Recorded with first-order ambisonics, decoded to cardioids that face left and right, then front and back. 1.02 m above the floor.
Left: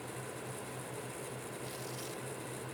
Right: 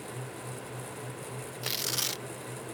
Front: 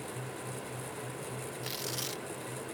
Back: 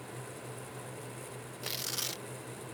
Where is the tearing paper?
100° right.